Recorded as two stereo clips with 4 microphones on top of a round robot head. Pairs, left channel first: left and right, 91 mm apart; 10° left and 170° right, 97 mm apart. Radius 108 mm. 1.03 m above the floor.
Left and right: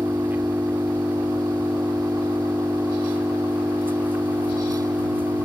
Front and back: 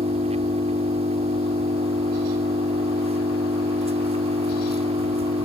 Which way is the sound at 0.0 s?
165° right.